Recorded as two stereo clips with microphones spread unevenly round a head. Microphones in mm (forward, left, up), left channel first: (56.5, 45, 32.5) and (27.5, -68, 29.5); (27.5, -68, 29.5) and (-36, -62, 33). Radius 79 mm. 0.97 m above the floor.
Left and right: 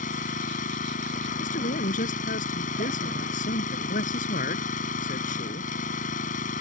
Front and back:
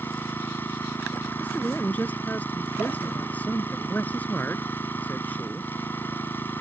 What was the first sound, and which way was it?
An engine running, 70° left.